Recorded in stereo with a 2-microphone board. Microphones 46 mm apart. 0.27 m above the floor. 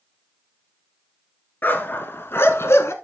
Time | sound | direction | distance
1.6 | a dog barking | 45° left (ahead or behind) | 1.4 m